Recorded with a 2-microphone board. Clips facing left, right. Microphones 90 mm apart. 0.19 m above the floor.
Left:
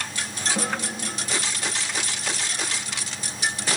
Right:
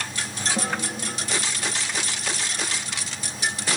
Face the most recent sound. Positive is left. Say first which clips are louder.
# even
turn(degrees=50)  # may be behind; listen again after turning